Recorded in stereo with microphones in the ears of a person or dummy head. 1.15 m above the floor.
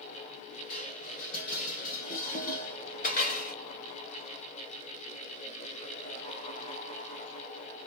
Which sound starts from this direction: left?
Dishes clattering, at 0.7 s.